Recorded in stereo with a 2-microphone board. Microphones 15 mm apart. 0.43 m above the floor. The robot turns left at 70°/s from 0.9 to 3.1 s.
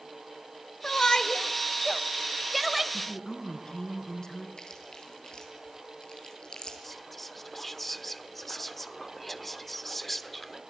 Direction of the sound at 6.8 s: 5° left (ahead or behind).